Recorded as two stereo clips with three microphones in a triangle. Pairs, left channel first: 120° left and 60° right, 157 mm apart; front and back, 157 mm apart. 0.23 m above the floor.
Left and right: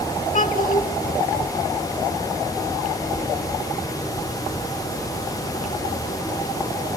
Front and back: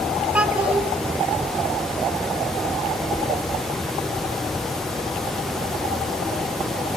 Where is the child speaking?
100° left, 1.4 m.